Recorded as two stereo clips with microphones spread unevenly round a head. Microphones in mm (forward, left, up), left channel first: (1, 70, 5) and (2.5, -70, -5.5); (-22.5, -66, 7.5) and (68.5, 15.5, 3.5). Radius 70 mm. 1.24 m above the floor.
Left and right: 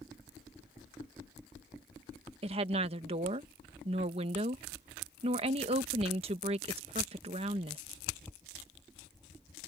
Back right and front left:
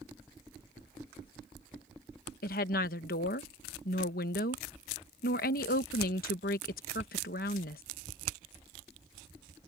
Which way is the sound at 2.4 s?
140° right.